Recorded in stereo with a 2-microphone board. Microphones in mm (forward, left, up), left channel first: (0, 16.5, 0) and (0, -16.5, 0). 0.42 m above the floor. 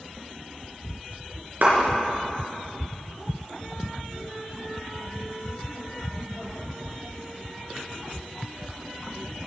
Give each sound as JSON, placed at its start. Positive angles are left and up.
{"t": 1.6, "sound": "a clap", "side_deg": -70, "distance_m": 4.5}